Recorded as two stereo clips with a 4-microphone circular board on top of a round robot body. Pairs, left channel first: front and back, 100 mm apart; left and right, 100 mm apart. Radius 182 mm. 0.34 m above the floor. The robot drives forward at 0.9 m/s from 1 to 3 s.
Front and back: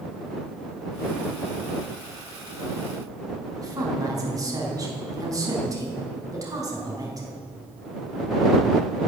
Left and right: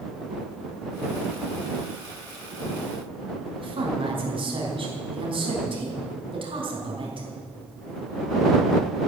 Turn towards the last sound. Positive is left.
turn(degrees=-120)